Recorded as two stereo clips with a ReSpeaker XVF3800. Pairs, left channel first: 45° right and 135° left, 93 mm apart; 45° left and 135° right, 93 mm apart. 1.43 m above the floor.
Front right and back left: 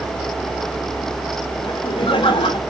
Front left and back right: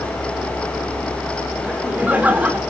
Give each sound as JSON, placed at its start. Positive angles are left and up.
{"t": 1.6, "sound": "laughter", "azimuth_deg": -60, "distance_m": 3.5}